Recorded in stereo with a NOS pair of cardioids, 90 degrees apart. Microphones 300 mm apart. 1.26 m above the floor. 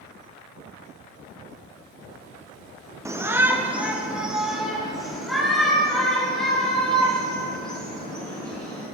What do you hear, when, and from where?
3.0 s a shout: 10° right, 0.9 m; by 8.8 s 5° left, 5 m